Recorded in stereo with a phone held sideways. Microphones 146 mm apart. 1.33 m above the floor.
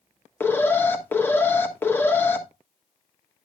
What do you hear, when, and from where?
0.4 s an alarm: 15° left (ahead or behind), 1.4 m